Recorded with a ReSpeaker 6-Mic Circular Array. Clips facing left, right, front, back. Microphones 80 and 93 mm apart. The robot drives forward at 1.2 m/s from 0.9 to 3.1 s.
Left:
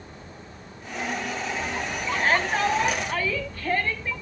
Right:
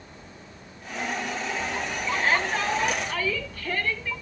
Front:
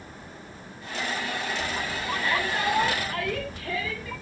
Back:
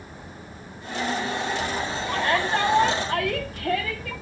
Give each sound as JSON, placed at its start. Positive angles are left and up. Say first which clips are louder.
{"t": 2.1, "sound": "a shout", "louder": "left 2 dB, back 4 dB", "azimuth_deg": 140, "distance_m": 7.5}